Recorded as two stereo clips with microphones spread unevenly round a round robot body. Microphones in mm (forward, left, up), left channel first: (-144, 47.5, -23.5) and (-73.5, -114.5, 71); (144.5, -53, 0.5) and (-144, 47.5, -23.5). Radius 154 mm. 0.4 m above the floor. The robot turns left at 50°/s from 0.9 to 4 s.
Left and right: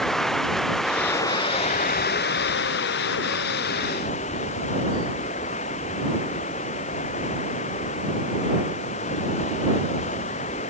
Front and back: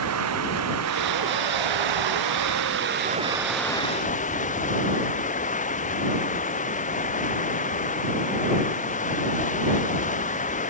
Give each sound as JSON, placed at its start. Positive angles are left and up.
{"t": 0.0, "sound": "running water", "azimuth_deg": -155}